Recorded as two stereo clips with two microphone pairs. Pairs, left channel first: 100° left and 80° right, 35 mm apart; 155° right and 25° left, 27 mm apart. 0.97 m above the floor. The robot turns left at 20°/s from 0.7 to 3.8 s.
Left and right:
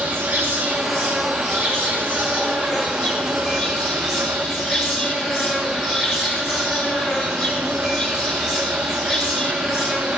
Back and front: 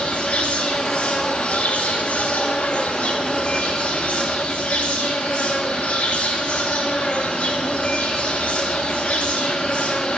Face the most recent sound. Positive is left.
turn(degrees=-160)